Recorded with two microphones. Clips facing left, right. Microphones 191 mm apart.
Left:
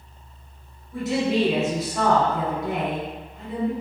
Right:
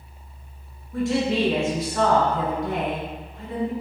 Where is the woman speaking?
5° left (ahead or behind), 1.2 m.